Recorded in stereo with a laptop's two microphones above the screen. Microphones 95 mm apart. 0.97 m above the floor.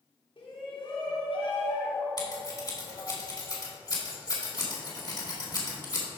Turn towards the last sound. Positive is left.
turn(degrees=45)  # may be behind; listen again after turning